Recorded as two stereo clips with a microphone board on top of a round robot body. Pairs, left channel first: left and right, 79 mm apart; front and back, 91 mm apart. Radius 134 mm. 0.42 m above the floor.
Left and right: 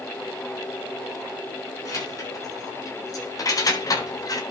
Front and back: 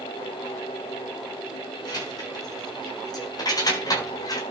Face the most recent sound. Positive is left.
turn(degrees=50)